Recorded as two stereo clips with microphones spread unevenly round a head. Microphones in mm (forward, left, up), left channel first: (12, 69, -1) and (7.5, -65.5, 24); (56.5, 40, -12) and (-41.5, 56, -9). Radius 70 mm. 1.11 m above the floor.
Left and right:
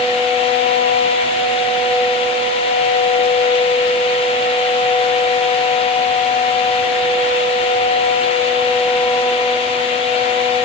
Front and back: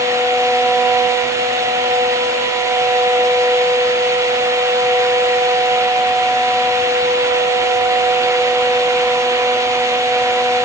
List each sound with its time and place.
Only background noise.